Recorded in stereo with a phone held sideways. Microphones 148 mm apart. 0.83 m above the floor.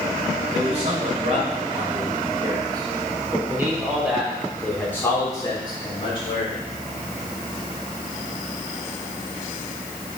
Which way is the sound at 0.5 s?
50° right (ahead or behind).